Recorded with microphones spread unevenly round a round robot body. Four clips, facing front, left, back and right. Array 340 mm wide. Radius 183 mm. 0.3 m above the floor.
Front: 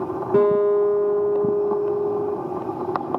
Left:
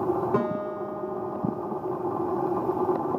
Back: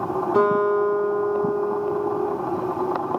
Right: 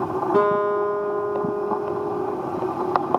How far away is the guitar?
About 7 m.